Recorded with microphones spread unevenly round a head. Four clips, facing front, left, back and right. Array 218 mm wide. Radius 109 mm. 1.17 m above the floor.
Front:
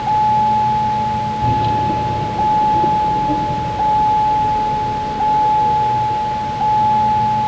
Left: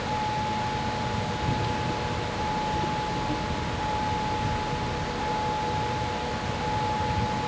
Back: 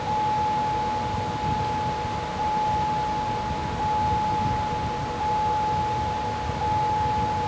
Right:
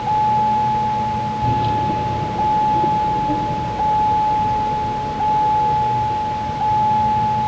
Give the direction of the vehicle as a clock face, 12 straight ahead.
1 o'clock.